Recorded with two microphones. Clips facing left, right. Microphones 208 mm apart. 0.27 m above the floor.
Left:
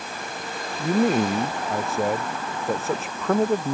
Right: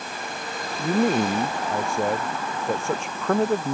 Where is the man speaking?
Centre (ahead or behind).